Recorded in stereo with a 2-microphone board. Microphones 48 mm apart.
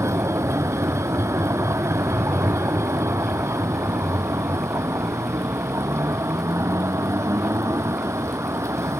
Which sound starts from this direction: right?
A vehicle, at 0.0 s.